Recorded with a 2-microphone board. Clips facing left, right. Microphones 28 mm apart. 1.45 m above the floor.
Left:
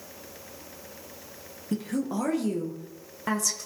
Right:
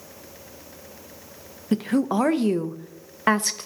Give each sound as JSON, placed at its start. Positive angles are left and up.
{"t": 1.7, "sound": "a woman speaking", "side_deg": -50, "distance_m": 0.5}